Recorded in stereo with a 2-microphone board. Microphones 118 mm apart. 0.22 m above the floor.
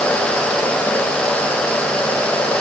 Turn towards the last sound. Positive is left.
No sound to turn to.